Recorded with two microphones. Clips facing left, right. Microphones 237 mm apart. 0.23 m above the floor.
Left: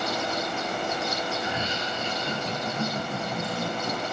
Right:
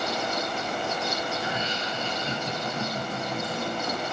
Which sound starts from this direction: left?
Laughter, at 1.4 s.